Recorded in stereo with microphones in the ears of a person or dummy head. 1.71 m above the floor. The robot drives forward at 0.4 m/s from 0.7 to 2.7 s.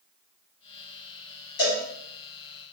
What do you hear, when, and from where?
1.6 s a cowbell: 55° left (ahead or behind), 1.6 m